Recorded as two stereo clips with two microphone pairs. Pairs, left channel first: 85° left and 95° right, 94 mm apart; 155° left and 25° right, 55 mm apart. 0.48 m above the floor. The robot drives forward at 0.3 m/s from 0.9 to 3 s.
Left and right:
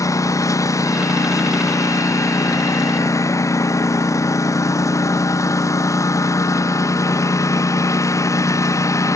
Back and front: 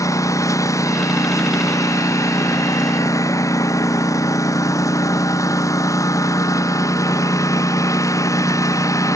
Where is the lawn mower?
140° left.